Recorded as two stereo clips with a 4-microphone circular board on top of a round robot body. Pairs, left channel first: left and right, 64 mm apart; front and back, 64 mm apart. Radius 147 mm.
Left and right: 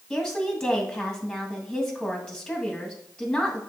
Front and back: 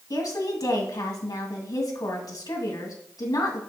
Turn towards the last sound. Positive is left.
turn(degrees=5)